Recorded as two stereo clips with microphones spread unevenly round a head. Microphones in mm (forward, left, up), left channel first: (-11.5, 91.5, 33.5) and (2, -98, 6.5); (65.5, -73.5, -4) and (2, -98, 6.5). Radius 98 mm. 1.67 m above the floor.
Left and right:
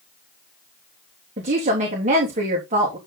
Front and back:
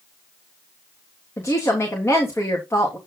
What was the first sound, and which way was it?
A woman speaking, 30° right.